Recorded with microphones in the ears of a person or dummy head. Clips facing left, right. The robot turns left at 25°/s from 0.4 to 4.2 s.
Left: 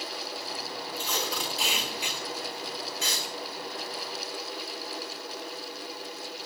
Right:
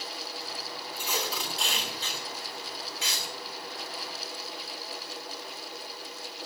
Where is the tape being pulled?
10° right (ahead or behind), 4.5 m; by 3.2 s 50° left (ahead or behind), 4.5 m.